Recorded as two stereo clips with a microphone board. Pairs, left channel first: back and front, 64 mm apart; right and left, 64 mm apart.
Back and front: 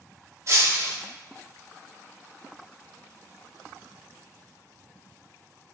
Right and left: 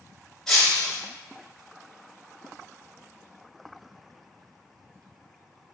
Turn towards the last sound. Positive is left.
turn(degrees=-10)